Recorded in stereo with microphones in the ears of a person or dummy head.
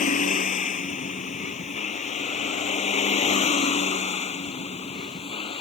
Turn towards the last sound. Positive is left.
turn(degrees=30)  # may be behind; listen again after turning